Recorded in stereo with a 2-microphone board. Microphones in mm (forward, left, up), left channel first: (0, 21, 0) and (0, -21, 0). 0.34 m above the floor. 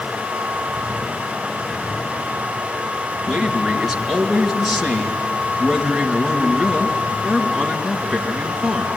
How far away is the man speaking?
About 5 m.